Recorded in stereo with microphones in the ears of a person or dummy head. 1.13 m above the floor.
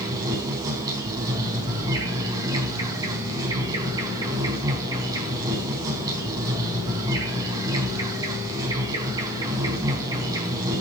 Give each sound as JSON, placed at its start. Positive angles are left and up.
{"t": 0.0, "sound": "an insect", "side_deg": -20, "distance_m": 4.5}